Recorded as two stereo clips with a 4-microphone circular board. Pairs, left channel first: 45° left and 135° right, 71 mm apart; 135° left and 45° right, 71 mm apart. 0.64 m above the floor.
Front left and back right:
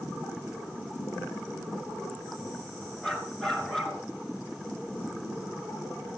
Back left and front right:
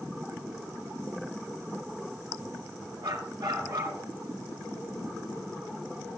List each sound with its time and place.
3.0 s a dog barking: 35° right, 3.5 m